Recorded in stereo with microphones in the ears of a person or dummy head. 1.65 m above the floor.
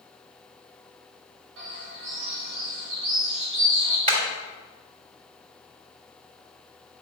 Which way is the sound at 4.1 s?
40° right (ahead or behind).